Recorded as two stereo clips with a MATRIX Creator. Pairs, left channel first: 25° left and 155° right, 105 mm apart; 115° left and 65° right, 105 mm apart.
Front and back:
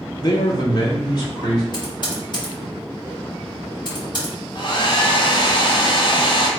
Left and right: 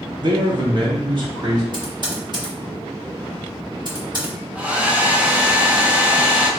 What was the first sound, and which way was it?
A man speaking, 25° right.